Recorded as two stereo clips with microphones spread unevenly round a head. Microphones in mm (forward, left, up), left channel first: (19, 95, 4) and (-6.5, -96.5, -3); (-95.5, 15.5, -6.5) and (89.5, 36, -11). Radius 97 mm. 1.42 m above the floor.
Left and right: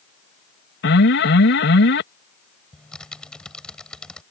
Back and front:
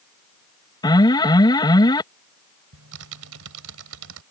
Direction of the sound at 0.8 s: 120° left.